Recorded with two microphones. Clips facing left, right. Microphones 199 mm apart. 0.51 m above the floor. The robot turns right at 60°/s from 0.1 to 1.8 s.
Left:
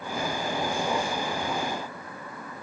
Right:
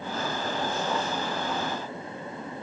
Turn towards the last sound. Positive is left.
No sound to turn to.